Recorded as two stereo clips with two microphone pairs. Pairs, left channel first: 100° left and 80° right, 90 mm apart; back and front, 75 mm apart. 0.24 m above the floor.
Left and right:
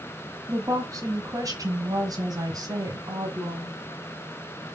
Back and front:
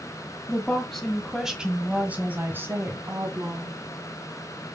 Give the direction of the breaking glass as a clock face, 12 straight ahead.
I don't hear breaking glass.